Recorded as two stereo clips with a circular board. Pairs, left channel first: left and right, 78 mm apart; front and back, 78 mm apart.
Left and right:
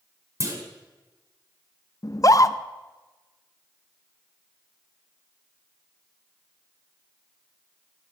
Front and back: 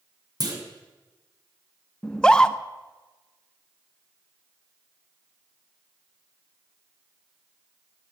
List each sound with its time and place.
0.4 s a clunk: 140° right, 1.7 m
2.0 s a scream: 75° left, 0.5 m